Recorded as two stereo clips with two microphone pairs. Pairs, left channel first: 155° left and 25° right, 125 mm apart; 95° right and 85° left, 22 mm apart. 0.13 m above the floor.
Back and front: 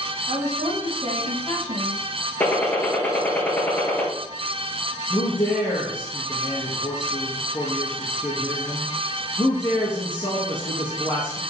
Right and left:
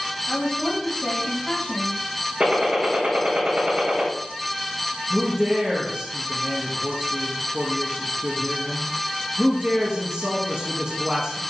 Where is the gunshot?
80° left, 2 m.